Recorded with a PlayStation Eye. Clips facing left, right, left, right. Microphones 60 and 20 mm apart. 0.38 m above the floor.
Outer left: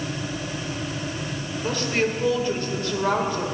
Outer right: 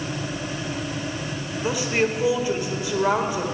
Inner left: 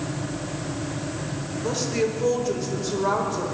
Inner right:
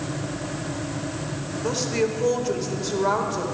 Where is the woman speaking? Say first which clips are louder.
Outer right 1 dB, inner right 1 dB; 15° right (ahead or behind), 1.4 m.